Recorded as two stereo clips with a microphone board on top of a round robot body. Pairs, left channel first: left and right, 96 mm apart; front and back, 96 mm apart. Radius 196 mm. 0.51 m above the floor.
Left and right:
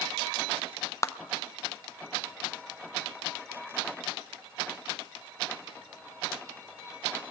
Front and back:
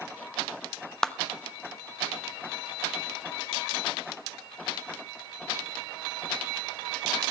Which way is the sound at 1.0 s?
80° left.